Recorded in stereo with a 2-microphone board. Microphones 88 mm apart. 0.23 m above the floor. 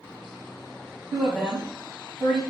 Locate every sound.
1.1 s a woman speaking: 5° left (ahead or behind), 1.1 m